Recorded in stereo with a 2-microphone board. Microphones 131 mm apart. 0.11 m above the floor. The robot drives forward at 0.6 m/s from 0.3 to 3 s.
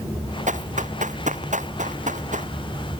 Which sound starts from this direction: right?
Running footsteps, at 0.5 s.